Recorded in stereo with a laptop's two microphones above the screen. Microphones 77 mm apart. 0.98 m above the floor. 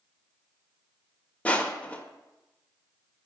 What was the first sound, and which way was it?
Crushing, 20° left (ahead or behind).